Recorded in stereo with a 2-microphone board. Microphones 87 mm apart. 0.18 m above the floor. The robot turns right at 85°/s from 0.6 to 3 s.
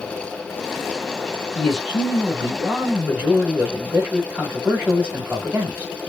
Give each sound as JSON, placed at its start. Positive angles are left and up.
{"t": 1.6, "sound": "a man speaking", "side_deg": 5, "distance_m": 1.3}